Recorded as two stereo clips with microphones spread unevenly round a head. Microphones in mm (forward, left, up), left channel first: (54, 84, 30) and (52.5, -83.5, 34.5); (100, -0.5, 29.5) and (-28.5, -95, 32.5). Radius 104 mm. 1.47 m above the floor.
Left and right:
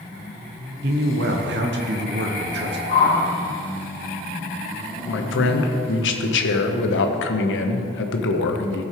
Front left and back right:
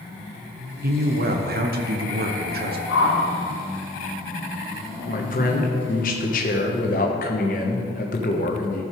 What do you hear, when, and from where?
0.8 s a man speaking: 120° right, 0.9 m
2.9 s a whoosh: 55° left, 1.8 m
5.1 s a man speaking: 90° left, 1.1 m